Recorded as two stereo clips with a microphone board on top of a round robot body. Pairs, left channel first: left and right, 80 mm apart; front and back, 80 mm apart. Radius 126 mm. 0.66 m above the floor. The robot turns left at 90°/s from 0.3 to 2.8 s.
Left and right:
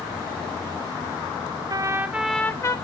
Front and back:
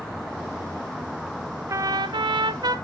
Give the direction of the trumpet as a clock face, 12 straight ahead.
4 o'clock.